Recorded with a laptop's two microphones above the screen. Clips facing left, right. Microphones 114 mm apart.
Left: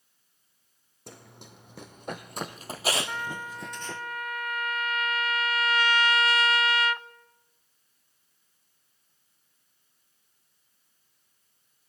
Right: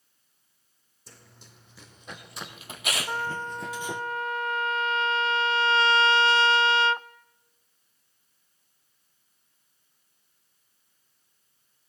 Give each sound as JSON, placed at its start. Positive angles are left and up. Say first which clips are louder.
{"t": 1.1, "sound": "running footsteps", "louder": "left 7 dB", "side_deg": 65, "distance_m": 2.5}
{"t": 3.1, "sound": "a trumpet", "louder": "right 4 dB", "side_deg": -30, "distance_m": 0.6}